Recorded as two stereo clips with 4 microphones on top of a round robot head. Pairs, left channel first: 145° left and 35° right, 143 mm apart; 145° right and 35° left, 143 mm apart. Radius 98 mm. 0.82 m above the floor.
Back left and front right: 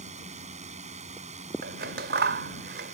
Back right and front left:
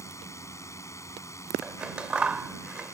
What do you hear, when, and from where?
0.0 s a drone: 75° right
1.6 s scissors: 50° right